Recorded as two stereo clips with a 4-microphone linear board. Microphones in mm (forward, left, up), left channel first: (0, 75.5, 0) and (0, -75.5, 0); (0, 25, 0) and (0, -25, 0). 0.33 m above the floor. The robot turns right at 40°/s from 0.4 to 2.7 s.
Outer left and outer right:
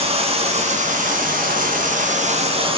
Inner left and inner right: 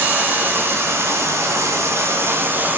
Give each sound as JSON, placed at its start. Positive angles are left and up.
{"t": 0.0, "sound": "running water", "azimuth_deg": -135, "distance_m": 2.5}